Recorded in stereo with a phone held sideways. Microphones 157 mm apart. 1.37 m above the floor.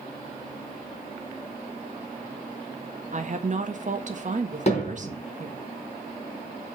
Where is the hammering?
45° left (ahead or behind), 3.5 m.